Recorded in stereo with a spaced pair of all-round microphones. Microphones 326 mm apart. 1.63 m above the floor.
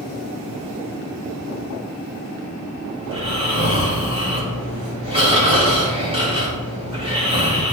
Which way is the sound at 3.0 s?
15° right (ahead or behind).